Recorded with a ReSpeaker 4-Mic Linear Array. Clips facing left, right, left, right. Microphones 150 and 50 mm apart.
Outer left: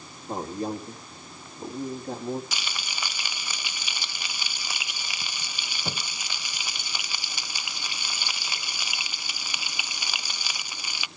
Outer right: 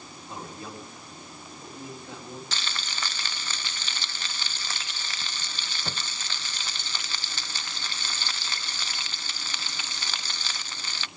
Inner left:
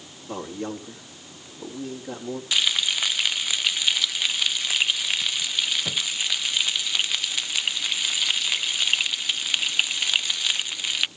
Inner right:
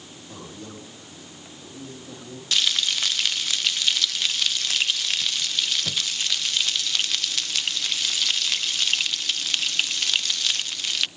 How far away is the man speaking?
About 5 m.